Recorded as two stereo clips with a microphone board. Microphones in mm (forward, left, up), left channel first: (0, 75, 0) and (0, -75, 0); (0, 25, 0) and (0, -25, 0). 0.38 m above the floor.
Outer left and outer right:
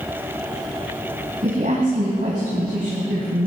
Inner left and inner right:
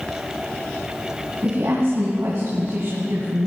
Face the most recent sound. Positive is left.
turn(degrees=-70)  # may be behind; listen again after turning